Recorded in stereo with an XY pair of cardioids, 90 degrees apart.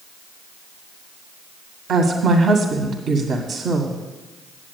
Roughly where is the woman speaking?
Ahead right.